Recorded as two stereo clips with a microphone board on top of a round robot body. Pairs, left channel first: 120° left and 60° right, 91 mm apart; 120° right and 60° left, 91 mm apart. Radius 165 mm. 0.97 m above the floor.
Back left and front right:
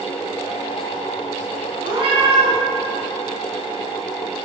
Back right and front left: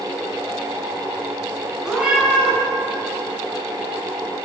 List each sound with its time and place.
1.8 s a cat meowing: 25° right, 4 m